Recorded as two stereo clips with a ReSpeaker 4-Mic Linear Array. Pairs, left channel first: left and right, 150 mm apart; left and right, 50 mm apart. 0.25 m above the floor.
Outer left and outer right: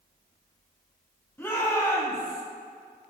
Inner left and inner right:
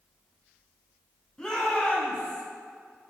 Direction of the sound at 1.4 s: 15° left (ahead or behind).